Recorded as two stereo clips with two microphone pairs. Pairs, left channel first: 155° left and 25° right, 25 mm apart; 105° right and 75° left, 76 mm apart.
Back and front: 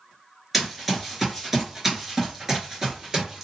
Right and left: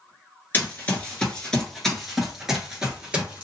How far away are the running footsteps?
About 1.7 m.